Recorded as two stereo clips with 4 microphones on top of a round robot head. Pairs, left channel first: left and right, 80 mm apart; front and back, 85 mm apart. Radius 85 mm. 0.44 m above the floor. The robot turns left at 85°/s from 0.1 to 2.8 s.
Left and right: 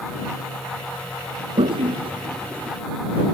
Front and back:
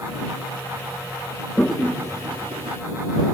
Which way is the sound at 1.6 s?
75° right.